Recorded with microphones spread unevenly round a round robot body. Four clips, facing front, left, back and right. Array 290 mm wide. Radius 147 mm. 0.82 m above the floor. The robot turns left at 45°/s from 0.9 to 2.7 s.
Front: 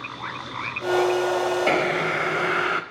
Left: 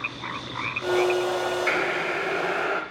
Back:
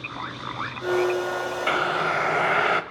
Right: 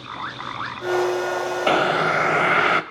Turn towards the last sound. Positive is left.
turn(degrees=-100)